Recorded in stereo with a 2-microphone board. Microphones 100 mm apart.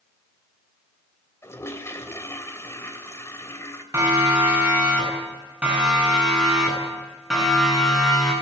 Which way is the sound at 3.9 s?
25° right (ahead or behind).